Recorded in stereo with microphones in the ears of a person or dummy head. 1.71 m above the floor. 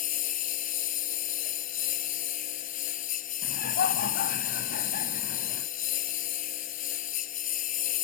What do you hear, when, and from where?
0.0 s a lawn mower: 45° left (ahead or behind)
3.4 s laughter: 50° left (ahead or behind)